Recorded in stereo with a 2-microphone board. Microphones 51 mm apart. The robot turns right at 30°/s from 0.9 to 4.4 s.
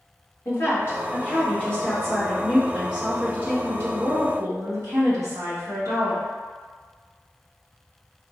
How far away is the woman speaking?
About 1.3 m.